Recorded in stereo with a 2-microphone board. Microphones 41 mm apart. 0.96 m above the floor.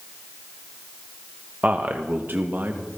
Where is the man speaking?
40° right (ahead or behind), 0.9 m; by 2.8 s 50° right (ahead or behind), 1.5 m.